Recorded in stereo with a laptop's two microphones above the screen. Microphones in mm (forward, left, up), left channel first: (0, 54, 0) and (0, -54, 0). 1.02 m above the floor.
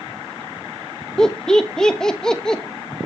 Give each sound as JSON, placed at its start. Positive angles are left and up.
{"t": 1.2, "sound": "laughter", "side_deg": 5, "distance_m": 1.1}